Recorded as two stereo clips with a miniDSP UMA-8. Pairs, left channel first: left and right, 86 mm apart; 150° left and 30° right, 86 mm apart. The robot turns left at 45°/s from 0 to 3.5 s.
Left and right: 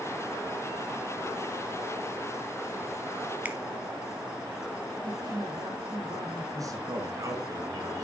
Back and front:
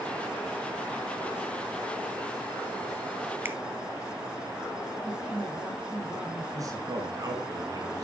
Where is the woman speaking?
125° right, 5.5 m.